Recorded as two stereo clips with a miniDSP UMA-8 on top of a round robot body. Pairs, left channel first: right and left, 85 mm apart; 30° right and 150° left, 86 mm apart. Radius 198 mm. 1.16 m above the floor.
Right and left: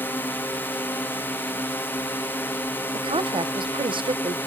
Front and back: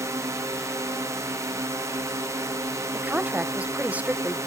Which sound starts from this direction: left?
A woman speaking, at 2.9 s.